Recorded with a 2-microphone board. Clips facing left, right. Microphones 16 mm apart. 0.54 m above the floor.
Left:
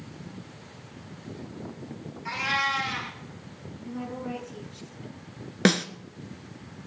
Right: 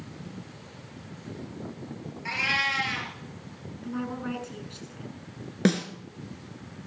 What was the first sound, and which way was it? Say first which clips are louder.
A cat meowing: right 1 dB; 25° right (ahead or behind).